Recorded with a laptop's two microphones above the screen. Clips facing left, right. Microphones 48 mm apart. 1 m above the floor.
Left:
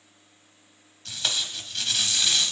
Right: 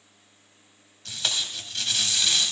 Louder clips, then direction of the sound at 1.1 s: Even; centre (ahead or behind).